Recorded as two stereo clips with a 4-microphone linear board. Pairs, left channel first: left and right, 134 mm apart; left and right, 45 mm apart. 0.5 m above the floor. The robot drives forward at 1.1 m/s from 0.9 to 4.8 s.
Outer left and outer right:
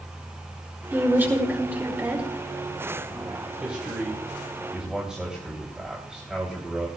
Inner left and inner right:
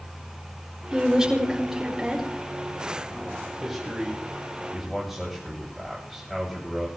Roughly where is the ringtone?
I don't hear a ringtone.